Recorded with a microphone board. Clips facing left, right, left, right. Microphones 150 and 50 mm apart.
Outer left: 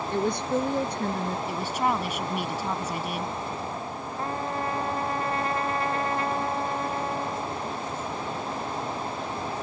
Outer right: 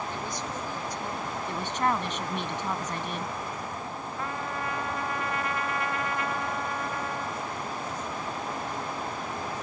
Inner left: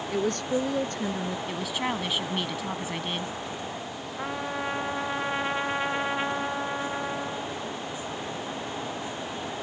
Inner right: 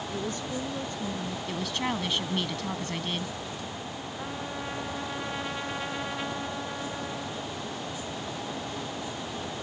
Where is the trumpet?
30° left (ahead or behind).